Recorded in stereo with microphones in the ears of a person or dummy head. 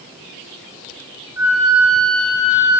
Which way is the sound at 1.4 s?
10° right (ahead or behind).